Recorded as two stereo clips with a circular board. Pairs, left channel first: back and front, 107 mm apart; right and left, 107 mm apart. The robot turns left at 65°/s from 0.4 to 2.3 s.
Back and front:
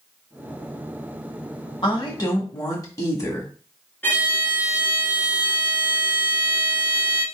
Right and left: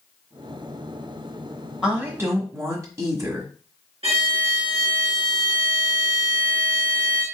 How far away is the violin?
About 2 m.